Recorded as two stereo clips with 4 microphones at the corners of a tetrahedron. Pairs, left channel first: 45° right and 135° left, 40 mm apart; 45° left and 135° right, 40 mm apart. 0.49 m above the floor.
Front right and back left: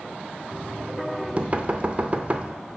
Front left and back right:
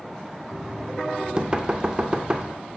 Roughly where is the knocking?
Behind.